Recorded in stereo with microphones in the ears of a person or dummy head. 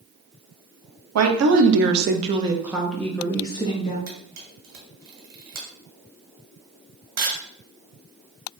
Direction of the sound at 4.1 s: 65° right (ahead or behind).